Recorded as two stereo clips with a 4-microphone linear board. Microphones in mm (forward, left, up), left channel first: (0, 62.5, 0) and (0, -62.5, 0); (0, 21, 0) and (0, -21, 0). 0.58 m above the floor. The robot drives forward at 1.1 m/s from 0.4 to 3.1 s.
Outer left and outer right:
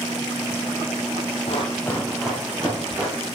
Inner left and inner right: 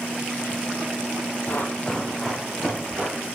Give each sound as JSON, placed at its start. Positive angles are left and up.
{"t": 1.5, "sound": "running footsteps", "side_deg": 55, "distance_m": 1.3}